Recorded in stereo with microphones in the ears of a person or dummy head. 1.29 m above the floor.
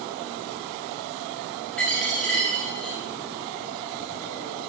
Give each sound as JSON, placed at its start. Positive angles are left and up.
{"t": 1.8, "sound": "a dropped coin", "side_deg": 5, "distance_m": 0.7}